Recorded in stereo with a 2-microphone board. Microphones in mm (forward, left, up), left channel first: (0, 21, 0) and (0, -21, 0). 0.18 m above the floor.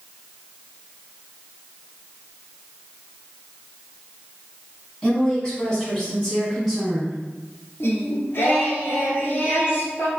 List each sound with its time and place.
5.0 s a woman speaking: 25° left (ahead or behind), 1.3 m; by 7.2 s 5° left (ahead or behind), 1.4 m
7.8 s singing: 65° left (ahead or behind), 0.9 m